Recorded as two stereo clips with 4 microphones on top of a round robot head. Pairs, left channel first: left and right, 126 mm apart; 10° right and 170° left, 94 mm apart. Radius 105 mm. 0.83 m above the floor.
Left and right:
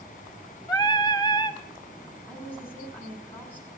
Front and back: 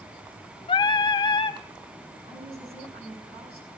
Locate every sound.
0.7 s singing: 25° left, 1.2 m
2.3 s a woman speaking: 165° left, 7 m